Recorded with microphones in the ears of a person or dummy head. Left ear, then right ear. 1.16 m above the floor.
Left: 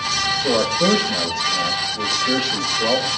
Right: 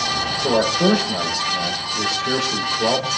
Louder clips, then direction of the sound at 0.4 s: Right 4 dB; 80° right.